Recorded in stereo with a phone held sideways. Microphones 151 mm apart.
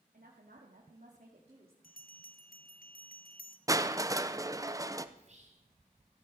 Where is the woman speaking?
85° right, 2 m; by 1.7 s 40° right (ahead or behind), 2.5 m.